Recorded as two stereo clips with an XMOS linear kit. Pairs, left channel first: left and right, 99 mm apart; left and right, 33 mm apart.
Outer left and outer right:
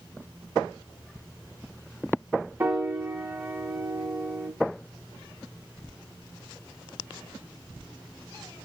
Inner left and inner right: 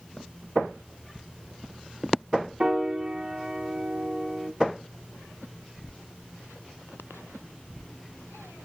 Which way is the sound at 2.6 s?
20° right (ahead or behind).